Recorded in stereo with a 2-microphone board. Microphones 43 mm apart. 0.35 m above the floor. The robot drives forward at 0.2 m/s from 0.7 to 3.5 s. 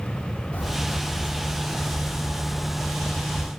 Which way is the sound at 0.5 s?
40° left (ahead or behind).